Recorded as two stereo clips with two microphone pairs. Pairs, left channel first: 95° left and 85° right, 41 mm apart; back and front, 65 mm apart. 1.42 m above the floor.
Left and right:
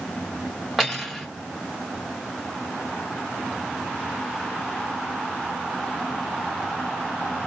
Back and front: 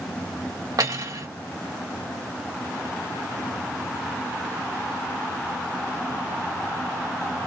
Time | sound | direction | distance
0.8 | cutlery clinking | straight ahead | 1.8 m